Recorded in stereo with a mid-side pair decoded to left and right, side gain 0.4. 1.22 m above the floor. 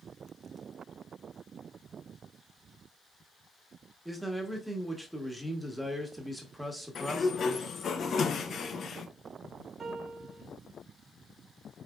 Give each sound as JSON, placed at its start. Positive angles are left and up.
{"t": 4.0, "sound": "a man speaking", "azimuth_deg": -5, "distance_m": 1.5}
{"t": 7.0, "sound": "a sliding door", "azimuth_deg": 55, "distance_m": 0.6}
{"t": 9.8, "sound": "a piano", "azimuth_deg": -40, "distance_m": 1.0}